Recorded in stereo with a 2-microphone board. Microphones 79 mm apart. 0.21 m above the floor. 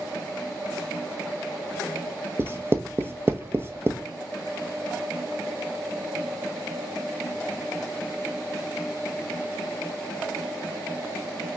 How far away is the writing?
About 0.6 m.